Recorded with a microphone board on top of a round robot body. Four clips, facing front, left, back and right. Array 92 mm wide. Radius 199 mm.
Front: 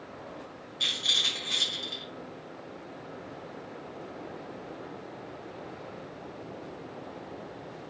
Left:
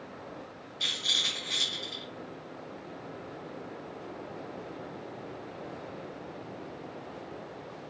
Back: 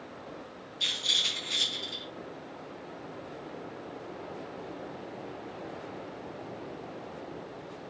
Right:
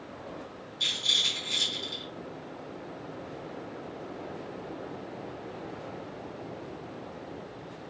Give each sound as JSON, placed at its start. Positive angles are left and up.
{"t": 0.8, "sound": "a rattle", "azimuth_deg": 45, "distance_m": 6.5}